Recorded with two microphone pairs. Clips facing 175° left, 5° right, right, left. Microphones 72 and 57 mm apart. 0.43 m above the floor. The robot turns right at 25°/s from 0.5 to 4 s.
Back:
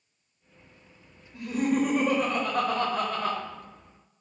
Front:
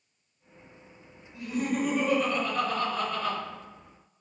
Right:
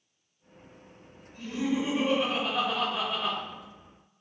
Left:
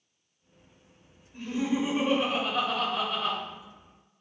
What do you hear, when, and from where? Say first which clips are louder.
1.3 s laughter: back 4 dB, left 1 dB; 150° left, 1.2 m; by 3.4 s 155° right, 1.2 m